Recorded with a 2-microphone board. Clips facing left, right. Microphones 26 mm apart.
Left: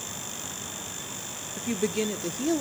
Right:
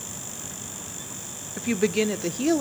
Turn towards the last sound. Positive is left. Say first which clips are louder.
# right 5 dB
turn(degrees=-30)  # may be behind; listen again after turning